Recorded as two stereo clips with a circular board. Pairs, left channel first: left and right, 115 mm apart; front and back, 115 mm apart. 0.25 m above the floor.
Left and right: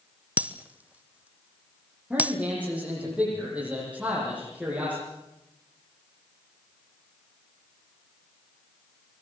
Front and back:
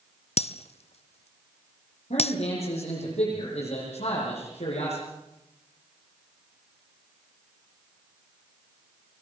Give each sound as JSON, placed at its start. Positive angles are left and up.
{"t": 0.4, "sound": "breaking glass", "azimuth_deg": -15, "distance_m": 0.9}
{"t": 2.1, "sound": "a man speaking", "azimuth_deg": -10, "distance_m": 9.5}